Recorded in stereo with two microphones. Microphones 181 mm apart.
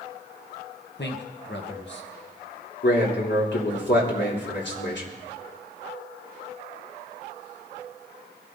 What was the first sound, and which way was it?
A man speaking, 70° left (ahead or behind).